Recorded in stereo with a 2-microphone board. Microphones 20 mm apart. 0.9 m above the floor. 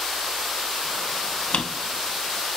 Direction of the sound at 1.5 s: 75° left (ahead or behind).